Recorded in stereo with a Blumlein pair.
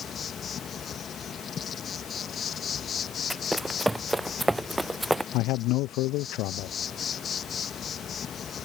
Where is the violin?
No violin in this recording.